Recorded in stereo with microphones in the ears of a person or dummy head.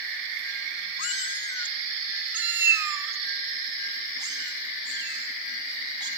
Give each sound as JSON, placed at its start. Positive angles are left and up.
{"t": 1.0, "sound": "a cat meowing", "side_deg": 45, "distance_m": 0.7}